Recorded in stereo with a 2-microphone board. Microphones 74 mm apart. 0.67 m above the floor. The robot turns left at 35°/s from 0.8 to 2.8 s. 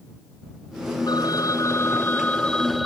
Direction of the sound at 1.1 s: 65° left.